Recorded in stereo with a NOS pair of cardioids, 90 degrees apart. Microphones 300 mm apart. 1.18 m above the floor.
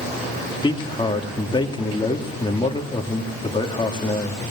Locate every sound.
0.6 s a man speaking: 15° left, 3 m